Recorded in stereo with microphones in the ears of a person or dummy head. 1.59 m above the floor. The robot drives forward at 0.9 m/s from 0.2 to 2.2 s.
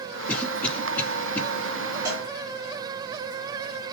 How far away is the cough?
About 3.5 m.